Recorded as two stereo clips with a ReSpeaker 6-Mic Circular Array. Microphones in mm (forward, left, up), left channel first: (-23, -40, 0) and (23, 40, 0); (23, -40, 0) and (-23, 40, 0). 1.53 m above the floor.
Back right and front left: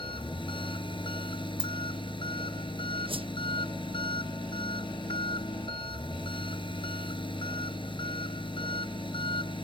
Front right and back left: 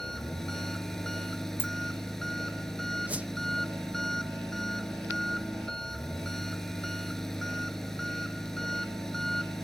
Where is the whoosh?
45° left.